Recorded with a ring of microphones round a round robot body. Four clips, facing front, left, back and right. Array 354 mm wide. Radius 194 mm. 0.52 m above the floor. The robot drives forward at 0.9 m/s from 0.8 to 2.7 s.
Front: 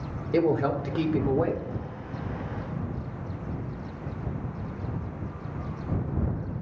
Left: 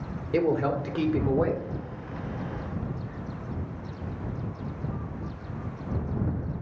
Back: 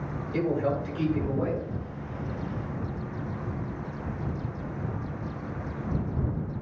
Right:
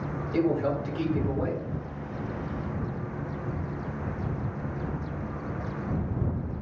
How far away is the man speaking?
About 1.9 m.